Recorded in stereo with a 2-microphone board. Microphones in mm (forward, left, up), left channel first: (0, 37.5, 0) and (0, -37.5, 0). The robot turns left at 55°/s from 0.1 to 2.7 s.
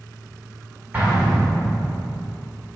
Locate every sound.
0.9 s an explosion: 25° right (ahead or behind), 1.9 m; by 1.9 s 25° left (ahead or behind), 1.9 m